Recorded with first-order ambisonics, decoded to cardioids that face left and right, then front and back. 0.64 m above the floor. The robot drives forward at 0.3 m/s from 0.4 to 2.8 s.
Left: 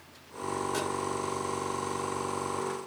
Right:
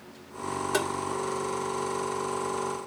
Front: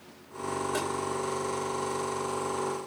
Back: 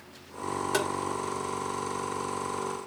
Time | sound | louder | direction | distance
0.7 | tapping | right 8 dB, back 6 dB | 145° right | 1.7 m